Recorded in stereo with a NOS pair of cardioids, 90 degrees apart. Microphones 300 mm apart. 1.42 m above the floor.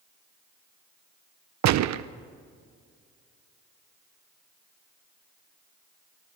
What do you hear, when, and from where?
1.6 s a gunshot: 65° right, 0.8 m